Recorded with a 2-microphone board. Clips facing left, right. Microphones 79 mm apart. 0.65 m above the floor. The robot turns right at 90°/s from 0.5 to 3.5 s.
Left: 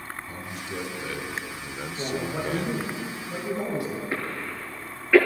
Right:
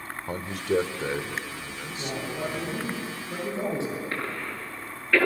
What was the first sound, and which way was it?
A man speaking, 90° right.